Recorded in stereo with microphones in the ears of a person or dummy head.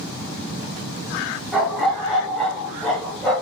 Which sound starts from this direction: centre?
A dog barking, at 1.5 s.